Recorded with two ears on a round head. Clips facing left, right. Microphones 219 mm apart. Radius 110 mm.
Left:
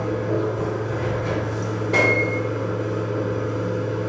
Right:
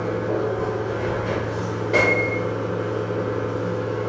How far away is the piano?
About 1.8 m.